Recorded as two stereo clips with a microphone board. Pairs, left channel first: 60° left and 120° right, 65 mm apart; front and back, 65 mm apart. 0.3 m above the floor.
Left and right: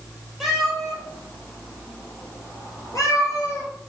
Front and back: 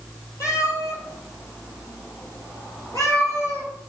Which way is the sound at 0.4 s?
30° right.